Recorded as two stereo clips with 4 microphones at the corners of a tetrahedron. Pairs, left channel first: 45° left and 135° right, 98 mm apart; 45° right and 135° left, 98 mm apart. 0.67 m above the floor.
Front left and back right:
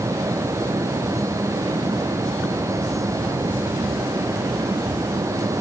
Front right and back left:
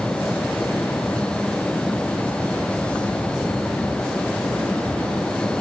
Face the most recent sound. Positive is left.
No sound to turn to.